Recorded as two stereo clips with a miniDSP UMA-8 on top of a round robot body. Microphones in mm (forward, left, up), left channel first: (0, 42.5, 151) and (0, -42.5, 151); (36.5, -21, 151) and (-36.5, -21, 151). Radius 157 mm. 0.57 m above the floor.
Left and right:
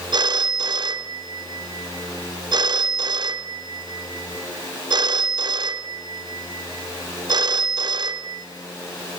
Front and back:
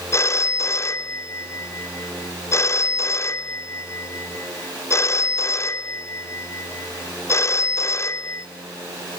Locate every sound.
0.1 s a phone ringing: 50° right, 0.9 m